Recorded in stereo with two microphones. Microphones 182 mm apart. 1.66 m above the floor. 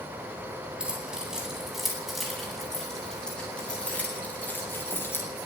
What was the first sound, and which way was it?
Keys jangling, 5° right (ahead or behind).